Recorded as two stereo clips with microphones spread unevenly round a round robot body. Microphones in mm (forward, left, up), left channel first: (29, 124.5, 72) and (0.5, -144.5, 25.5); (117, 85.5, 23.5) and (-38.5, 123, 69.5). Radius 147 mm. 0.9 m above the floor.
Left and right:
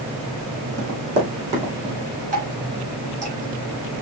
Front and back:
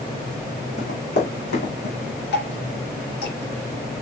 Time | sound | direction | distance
0.8 | running footsteps | 50° right | 3 m
2.3 | dripping | 30° right | 2.5 m